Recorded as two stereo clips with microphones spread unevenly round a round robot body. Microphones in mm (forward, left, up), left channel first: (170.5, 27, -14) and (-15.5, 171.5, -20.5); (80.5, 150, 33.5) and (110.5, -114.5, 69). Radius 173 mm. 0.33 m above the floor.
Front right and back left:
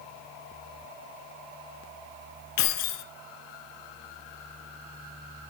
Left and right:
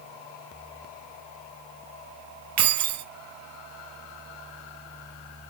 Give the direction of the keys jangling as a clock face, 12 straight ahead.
2 o'clock.